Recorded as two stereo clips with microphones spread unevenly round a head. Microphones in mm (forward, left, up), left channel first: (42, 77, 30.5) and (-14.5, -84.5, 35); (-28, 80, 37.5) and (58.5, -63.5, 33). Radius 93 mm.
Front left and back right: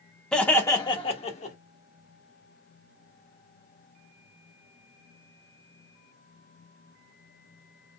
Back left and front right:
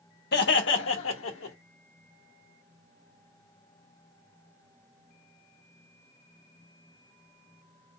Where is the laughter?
155° left, 1.2 m; by 1.6 s 120° left, 1.6 m.